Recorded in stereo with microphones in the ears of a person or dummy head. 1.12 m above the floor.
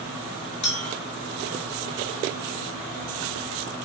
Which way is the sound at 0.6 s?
35° left (ahead or behind).